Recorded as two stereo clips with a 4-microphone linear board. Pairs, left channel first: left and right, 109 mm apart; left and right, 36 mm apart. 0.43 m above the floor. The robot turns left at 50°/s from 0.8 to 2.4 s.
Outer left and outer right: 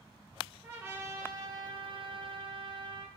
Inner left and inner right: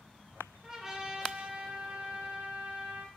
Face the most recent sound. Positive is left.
turn(degrees=-110)